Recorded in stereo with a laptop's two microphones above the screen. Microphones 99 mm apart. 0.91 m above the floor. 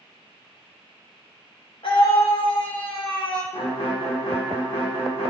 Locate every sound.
1.8 s a scream: 65° left (ahead or behind), 2.5 m
3.5 s a violin: 70° left (ahead or behind), 2 m